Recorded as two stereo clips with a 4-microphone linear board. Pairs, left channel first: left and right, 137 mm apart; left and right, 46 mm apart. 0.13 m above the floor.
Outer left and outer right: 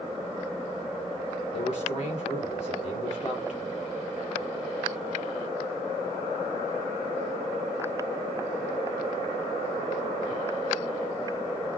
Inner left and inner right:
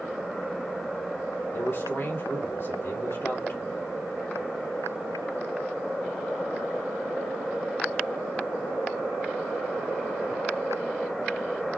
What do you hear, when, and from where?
1.5 s a man speaking: 60° left (ahead or behind), 2.5 m